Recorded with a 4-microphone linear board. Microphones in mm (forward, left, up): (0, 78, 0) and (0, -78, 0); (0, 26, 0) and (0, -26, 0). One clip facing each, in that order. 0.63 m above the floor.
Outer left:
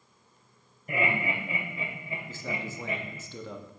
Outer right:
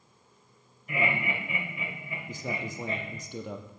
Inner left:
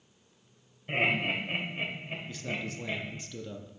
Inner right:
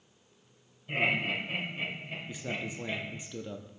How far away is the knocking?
No knocking in this recording.